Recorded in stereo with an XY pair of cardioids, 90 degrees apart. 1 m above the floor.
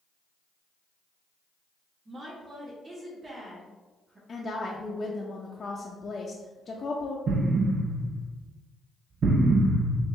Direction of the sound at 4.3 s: 45° left.